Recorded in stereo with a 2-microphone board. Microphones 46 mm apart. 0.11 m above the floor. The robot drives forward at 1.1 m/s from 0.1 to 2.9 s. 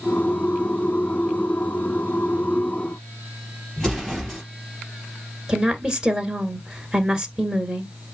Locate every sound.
3.8 s an explosion: 10° left (ahead or behind), 3 m
5.5 s a woman speaking: 15° right (ahead or behind), 1.3 m